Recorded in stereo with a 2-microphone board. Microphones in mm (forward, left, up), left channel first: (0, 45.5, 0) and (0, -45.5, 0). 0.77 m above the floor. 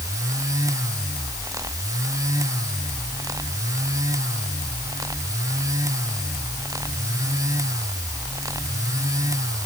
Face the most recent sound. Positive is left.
No sound to turn to.